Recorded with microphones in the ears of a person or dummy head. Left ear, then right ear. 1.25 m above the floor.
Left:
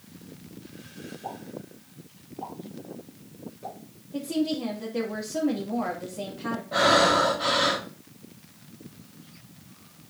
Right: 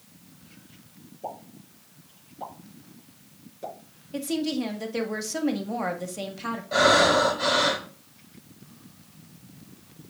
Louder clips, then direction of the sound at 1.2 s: Right 2 dB; 40° right (ahead or behind).